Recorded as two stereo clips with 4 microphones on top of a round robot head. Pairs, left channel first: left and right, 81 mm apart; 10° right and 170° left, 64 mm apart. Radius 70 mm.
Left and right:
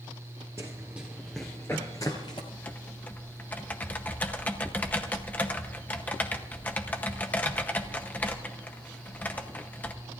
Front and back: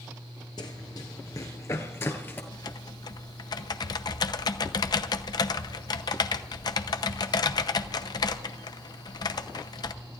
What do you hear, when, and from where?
0.6 s running footsteps: 25° right, 1.4 m; by 2.4 s 45° left, 1.4 m
2.5 s typing on a keyboard: 15° left, 0.7 m